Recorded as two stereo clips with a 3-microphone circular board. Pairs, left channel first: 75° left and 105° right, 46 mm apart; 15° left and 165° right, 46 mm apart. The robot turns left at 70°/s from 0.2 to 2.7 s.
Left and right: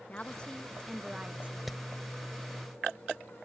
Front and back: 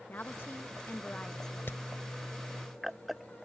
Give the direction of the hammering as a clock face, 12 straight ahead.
1 o'clock.